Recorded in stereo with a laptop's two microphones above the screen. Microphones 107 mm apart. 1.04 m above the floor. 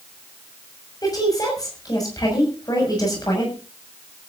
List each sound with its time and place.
1.0 s a woman speaking: 35° left (ahead or behind), 6 m